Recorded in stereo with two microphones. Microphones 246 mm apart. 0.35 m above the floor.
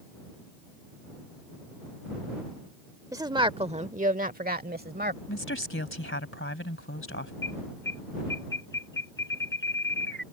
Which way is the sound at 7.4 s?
50° left (ahead or behind).